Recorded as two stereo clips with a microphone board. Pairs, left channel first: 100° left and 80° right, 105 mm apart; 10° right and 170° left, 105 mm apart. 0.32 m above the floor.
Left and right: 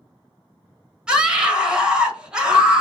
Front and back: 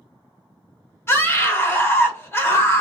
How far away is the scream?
About 1.1 m.